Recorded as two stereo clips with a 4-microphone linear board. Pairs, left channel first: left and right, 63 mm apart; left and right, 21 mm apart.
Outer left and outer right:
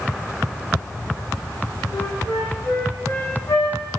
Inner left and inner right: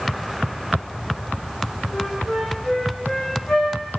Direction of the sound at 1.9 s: 70° left (ahead or behind).